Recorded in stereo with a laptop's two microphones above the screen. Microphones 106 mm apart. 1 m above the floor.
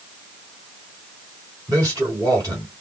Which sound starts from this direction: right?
A man speaking, at 1.7 s.